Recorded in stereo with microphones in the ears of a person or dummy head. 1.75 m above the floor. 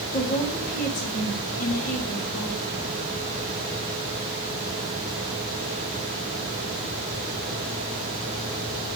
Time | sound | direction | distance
0.1 | a woman speaking | 50° left (ahead or behind) | 3.5 m